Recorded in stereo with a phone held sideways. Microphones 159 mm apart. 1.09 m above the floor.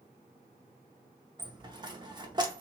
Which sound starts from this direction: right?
A dropped coin, at 1.4 s.